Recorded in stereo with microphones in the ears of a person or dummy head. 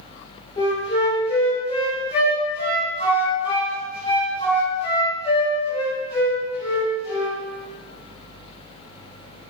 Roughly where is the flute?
Left.